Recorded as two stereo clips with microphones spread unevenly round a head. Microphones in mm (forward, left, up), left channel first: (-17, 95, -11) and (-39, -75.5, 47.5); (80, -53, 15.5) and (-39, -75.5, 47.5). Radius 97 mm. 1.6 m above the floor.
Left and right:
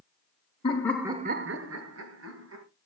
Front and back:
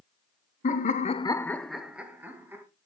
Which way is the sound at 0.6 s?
20° left.